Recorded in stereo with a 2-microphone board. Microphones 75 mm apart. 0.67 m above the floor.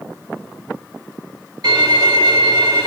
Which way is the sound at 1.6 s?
60° right (ahead or behind).